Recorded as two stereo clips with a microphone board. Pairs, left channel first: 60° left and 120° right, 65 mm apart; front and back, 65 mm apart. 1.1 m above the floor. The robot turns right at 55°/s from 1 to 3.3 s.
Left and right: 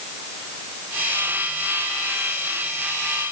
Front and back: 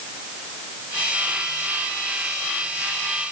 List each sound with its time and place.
Only background noise.